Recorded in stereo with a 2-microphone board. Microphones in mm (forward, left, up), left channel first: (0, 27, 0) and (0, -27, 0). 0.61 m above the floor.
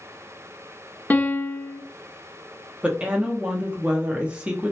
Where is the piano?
30° left (ahead or behind), 0.5 m.